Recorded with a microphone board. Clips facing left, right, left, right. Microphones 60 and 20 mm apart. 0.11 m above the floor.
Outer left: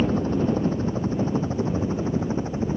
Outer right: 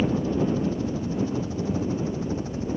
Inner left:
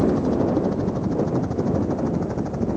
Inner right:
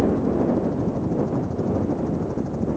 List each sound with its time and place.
0.0 s a helicopter: 45° left (ahead or behind); by 2.8 s 30° left (ahead or behind)